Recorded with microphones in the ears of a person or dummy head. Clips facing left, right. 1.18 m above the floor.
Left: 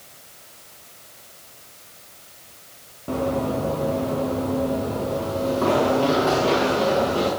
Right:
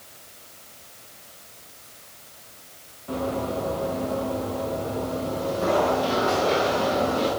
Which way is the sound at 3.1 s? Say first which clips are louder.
Left 4 dB; 65° left (ahead or behind).